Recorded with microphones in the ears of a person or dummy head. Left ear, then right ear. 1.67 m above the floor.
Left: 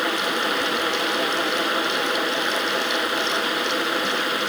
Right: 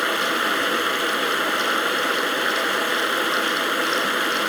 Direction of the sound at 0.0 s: 10° right (ahead or behind).